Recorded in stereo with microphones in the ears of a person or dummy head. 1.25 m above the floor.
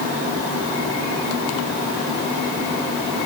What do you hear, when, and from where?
Only background noise.